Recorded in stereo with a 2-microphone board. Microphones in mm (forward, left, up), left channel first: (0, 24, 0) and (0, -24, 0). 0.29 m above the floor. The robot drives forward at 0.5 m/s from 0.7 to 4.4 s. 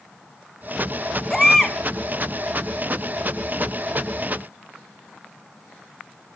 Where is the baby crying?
10° left (ahead or behind), 0.6 m; by 1.8 s 5° left (ahead or behind), 0.8 m.